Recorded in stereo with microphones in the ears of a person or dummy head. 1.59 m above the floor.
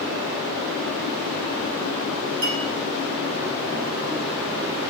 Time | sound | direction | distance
2.4 | a clink | 65° right (ahead or behind) | 4 m